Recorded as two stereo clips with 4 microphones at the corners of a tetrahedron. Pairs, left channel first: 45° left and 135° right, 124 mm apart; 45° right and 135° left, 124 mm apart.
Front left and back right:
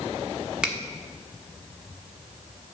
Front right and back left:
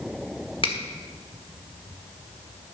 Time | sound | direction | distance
0.6 | a finger snap | 55° right | 1.5 m